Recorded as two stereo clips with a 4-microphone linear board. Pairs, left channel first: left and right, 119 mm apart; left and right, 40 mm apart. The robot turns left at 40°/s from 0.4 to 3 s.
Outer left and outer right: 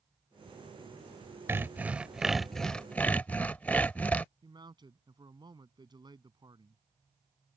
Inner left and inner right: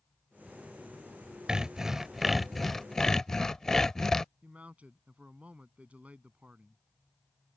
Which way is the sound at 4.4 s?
40° right (ahead or behind).